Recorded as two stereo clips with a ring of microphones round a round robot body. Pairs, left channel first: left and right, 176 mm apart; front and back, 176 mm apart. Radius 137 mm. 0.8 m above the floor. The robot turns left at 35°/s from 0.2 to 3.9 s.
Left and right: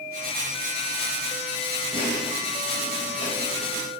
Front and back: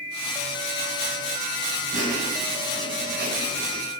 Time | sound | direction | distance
1.9 | laughter | 155° right | 4.5 m